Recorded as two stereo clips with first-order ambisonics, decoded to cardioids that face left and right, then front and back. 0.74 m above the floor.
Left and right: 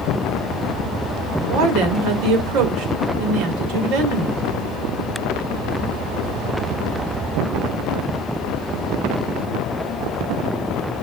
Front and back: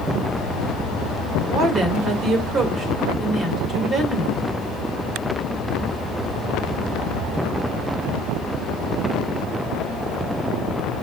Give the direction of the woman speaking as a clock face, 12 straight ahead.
4 o'clock.